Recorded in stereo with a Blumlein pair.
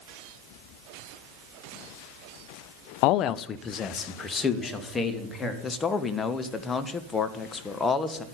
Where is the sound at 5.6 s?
15° left, 1.5 m.